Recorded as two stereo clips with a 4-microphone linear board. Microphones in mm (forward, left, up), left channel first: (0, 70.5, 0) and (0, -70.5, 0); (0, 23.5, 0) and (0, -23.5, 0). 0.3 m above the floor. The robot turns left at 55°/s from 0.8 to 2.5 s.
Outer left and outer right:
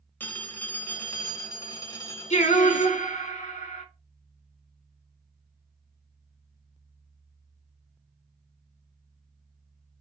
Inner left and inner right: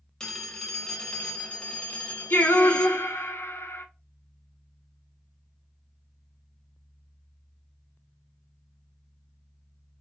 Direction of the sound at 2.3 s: 55° left (ahead or behind).